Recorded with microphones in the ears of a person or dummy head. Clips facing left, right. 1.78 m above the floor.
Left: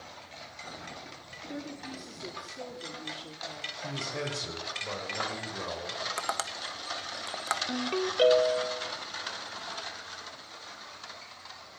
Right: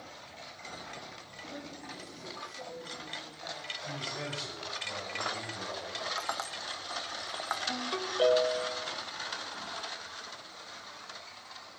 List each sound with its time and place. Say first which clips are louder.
1.5 s a woman speaking: left 5 dB; 40° left (ahead or behind), 4 m
3.8 s a man speaking: left 4 dB; 65° left (ahead or behind), 7.5 m
6.2 s tapping: left 3 dB; 45° left (ahead or behind), 1.3 m
7.7 s a ringtone: left 8 dB; 30° left (ahead or behind), 4 m